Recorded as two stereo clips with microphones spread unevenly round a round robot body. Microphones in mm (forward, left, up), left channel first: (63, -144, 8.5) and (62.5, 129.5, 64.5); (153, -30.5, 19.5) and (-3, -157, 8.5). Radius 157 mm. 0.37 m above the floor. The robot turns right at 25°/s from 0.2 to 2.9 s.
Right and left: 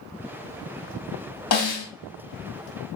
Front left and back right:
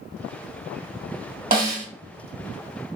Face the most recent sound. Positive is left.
turn(degrees=-65)